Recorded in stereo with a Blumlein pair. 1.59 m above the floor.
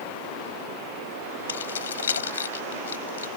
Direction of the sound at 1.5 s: 65° left.